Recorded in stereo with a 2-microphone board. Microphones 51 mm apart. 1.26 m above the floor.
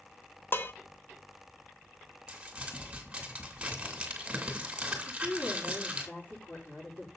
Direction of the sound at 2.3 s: 20° right (ahead or behind).